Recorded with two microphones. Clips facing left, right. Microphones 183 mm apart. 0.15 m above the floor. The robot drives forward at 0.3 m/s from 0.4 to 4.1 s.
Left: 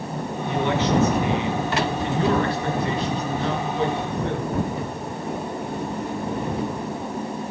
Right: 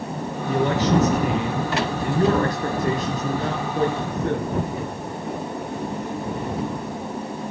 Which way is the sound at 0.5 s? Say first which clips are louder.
Right 2 dB; 40° right (ahead or behind).